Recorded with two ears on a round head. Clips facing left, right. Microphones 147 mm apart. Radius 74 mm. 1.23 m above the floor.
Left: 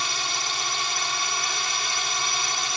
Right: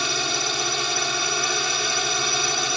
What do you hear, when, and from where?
0.0 s a drone: 65° right (ahead or behind)